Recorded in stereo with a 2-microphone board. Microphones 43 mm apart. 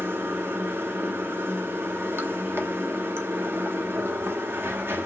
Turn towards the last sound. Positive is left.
turn(degrees=-60)  # may be behind; listen again after turning